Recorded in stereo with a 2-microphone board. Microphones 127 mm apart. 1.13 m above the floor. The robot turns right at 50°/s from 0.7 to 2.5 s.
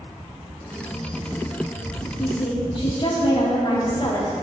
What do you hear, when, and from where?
2.2 s a woman speaking: 55° left (ahead or behind), 2 m; by 4.3 s 40° left (ahead or behind), 2 m